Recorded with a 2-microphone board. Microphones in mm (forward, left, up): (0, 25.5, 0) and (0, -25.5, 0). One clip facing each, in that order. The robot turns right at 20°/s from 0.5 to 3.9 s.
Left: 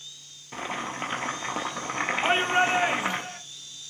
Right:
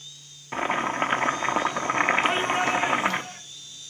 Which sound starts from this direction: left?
A shout, at 2.2 s.